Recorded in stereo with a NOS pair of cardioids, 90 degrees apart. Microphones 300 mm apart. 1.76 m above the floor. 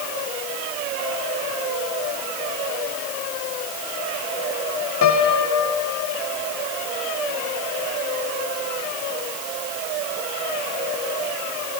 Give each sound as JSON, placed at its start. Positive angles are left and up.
{"t": 5.0, "sound": "a piano", "azimuth_deg": 65, "distance_m": 1.7}